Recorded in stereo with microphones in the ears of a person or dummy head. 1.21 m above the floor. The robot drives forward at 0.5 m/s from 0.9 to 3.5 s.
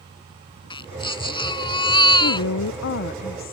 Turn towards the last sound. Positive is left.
turn(degrees=45)  # may be behind; listen again after turning